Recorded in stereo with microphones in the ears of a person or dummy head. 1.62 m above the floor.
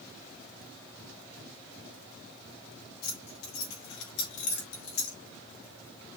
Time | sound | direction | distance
3.0 | keys jangling | 65° left (ahead or behind) | 3 m